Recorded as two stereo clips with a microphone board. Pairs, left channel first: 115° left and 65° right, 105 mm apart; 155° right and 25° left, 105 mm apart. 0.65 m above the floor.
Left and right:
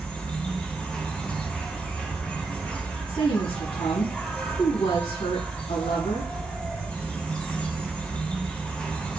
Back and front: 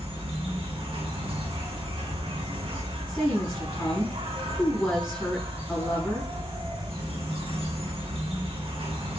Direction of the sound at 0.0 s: 35° left.